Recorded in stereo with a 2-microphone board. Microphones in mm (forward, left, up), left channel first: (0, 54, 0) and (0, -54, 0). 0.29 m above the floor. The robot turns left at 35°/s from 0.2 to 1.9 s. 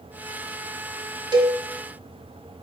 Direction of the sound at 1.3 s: 45° right (ahead or behind).